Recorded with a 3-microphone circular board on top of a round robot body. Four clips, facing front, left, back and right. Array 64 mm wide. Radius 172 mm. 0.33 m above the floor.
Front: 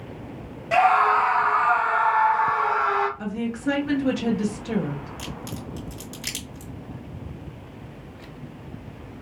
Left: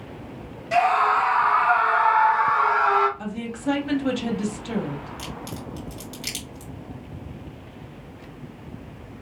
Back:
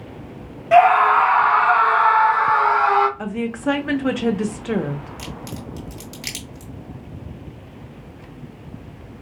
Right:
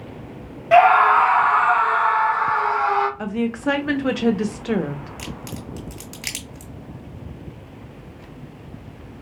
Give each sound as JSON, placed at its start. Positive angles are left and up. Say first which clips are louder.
{"t": 0.7, "sound": "a scream", "louder": "right 7 dB, back 5 dB", "azimuth_deg": -110, "distance_m": 1.0}
{"t": 3.2, "sound": "a woman speaking", "louder": "right 7 dB, back 3 dB", "azimuth_deg": -135, "distance_m": 1.2}
{"t": 5.2, "sound": "a crack", "louder": "right 1 dB, back 2 dB", "azimuth_deg": -105, "distance_m": 2.5}